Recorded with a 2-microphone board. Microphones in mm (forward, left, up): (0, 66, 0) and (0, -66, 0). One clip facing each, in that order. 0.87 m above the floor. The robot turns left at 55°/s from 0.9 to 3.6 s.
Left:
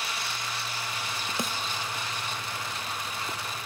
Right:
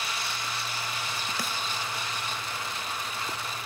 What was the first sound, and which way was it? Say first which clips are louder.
A snare drum: left 5 dB; 25° left (ahead or behind).